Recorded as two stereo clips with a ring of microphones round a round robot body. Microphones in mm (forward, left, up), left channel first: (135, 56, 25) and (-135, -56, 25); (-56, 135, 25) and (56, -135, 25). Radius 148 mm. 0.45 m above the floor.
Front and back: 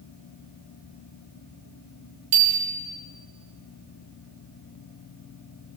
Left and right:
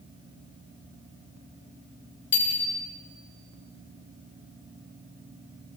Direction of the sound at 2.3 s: 170° left.